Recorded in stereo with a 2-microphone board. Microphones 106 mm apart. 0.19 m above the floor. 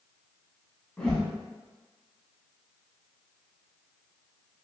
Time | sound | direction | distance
1.0 | a whoosh | 10° left (ahead or behind) | 0.9 m